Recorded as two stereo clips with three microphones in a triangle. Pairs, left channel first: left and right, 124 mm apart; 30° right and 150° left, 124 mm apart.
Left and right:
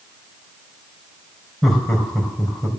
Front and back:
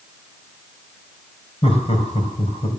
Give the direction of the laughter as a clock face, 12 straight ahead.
12 o'clock.